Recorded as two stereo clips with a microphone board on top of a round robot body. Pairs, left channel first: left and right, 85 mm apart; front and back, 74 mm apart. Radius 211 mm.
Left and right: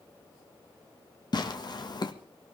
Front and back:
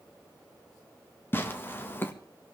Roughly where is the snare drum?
I don't hear a snare drum.